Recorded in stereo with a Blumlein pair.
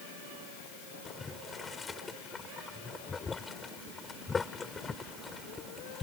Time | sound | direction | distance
1.1 | boiling | 15° left | ?